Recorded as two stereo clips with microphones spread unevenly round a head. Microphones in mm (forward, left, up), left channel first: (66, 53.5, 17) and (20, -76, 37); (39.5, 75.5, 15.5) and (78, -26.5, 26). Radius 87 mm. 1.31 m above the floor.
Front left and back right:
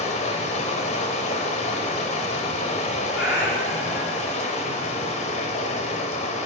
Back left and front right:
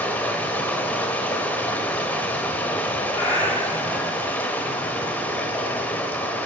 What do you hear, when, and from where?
0.0 s running water: 30° left, 0.9 m
3.1 s a cat meowing: 175° right, 1.4 m